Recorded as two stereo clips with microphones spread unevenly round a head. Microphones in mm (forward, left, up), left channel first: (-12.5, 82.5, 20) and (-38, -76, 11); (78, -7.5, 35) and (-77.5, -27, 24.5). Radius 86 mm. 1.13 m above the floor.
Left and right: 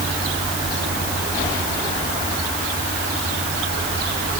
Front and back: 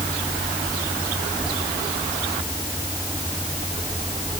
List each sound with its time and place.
Only background noise.